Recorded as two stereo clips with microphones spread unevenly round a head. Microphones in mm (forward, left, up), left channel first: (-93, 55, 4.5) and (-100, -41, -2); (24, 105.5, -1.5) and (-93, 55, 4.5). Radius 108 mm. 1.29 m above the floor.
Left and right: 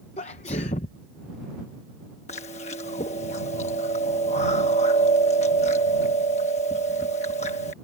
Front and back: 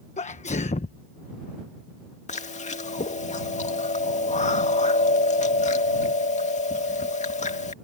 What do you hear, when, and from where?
0.2 s a sneeze: 55° left
2.3 s chewing: 50° left